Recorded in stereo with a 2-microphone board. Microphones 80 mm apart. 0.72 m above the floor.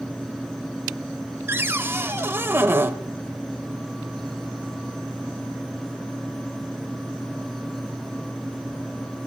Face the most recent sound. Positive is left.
turn(degrees=-30)  # may be behind; listen again after turning